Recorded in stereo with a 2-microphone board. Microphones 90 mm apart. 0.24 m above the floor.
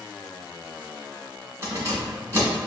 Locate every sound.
1.6 s keys jangling: 30° right (ahead or behind), 1.5 m